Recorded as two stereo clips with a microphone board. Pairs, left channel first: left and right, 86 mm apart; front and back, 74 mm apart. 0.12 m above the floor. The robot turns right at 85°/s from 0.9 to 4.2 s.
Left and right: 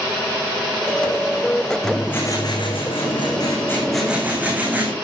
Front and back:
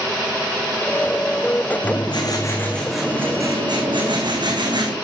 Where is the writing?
5° right, 9 m; by 4.9 s 160° right, 9 m.